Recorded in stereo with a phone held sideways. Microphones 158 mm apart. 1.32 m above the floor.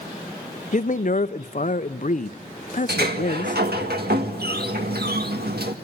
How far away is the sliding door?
About 1.8 m.